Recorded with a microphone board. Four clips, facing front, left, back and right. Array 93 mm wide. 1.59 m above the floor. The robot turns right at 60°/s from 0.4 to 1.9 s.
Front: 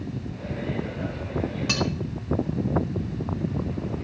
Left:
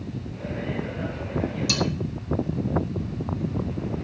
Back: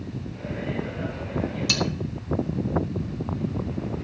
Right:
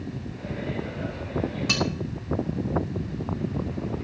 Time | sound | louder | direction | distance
1.7 | cutlery clinking | right 1 dB, front 1 dB | 40° right | 1.8 m